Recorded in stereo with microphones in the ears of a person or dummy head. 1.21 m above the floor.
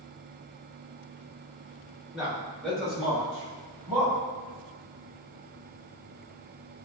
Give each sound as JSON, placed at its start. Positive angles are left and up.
{"t": 2.1, "sound": "a man speaking", "side_deg": 0, "distance_m": 1.8}